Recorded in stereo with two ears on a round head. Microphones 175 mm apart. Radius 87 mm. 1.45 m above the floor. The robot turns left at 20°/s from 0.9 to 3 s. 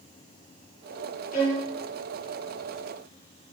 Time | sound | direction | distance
1.3 | a violin | 45° left (ahead or behind) | 9.5 m